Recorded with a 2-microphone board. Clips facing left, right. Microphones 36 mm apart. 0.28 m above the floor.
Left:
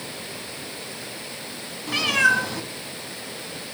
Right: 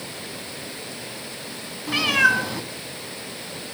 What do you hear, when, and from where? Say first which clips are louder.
1.9 s a cat meowing: right 1 dB; 5° right (ahead or behind), 0.6 m